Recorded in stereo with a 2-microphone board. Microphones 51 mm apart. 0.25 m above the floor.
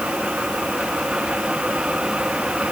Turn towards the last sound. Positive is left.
No sound to turn to.